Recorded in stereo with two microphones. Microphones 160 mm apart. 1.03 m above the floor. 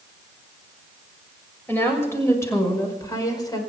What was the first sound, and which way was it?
A woman speaking, 15° left (ahead or behind).